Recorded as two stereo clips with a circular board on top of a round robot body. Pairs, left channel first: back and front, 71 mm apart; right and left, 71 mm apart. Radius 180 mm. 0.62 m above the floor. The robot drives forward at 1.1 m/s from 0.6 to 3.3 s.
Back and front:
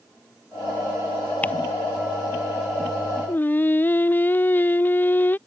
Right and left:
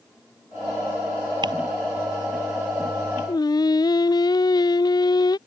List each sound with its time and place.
1.4 s ticking: 110° left
3.3 s singing: 115° right